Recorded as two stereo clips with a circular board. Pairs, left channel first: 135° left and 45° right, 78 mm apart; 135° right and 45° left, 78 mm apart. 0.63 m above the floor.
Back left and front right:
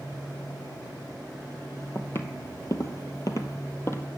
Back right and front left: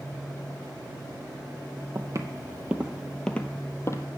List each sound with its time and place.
1.9 s footsteps: 80° left, 1.1 m; by 4.1 s 175° right, 1.2 m